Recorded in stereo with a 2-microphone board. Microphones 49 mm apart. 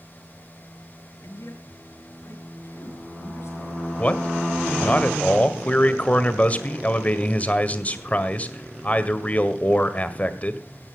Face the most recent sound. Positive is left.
turn(degrees=30)  # may be behind; listen again after turning